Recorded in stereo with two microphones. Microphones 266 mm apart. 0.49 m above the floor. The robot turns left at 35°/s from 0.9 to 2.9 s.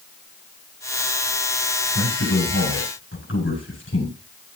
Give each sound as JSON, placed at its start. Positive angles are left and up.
{"t": 1.9, "sound": "a man speaking", "azimuth_deg": 85, "distance_m": 7.5}